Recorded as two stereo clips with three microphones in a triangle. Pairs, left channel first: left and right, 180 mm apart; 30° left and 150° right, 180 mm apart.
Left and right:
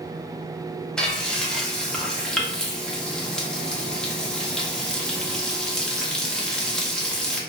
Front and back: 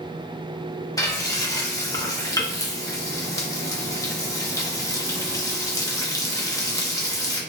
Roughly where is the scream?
I don't hear a scream.